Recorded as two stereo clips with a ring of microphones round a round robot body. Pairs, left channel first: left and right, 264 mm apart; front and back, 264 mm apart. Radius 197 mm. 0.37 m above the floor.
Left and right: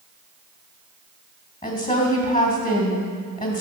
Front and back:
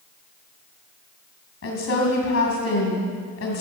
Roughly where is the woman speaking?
Ahead.